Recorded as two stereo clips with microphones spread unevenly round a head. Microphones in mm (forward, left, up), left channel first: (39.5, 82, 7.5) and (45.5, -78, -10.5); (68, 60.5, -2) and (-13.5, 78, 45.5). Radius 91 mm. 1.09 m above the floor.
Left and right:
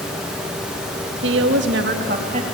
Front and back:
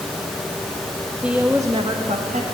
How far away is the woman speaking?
About 1.3 m.